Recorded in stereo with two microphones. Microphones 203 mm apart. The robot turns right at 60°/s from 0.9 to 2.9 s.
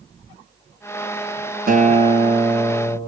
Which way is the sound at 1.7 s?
50° right.